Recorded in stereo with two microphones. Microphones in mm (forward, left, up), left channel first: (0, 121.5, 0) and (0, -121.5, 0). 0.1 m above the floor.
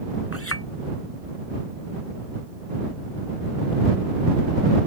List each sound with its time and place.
0.3 s a clink: 65° left (ahead or behind)